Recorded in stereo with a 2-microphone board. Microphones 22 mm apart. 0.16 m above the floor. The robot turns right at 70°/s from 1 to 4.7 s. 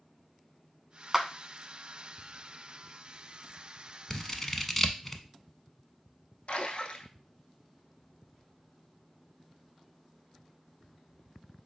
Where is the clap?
20° right (ahead or behind), 0.8 m.